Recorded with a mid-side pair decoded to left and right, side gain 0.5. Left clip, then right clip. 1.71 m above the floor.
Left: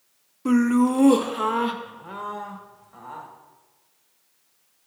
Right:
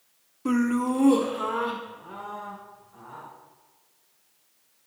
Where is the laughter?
10° left, 0.6 m; by 3.3 s 55° left, 2 m.